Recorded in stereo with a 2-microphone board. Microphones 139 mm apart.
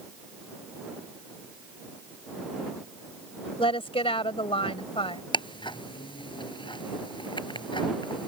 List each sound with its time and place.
3.6 s a woman speaking: 40° left (ahead or behind)
5.3 s ticking: 35° left (ahead or behind)